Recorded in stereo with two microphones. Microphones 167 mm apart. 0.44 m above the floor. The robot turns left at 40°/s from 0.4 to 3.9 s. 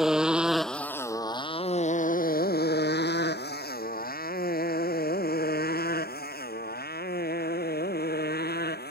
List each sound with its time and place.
0.0 s a motorcycle: 5° right (ahead or behind); by 8.9 s 70° left (ahead or behind)